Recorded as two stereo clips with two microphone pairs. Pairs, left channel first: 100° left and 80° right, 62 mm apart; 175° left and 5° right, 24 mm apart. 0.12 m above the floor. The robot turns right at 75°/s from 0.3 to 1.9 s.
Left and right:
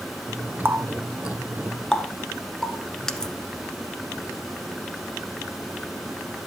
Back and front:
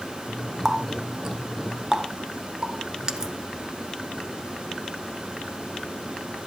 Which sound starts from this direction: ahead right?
A running tap, at 0.7 s.